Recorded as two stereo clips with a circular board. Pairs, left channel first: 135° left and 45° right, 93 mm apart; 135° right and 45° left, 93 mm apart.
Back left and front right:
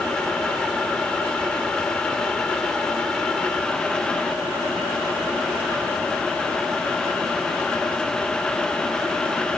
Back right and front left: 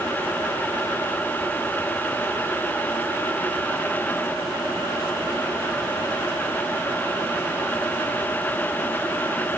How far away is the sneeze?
No sneeze in this recording.